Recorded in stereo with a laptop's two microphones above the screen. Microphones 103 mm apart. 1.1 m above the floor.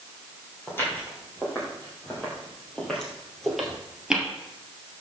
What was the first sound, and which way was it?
Footsteps, 20° left (ahead or behind).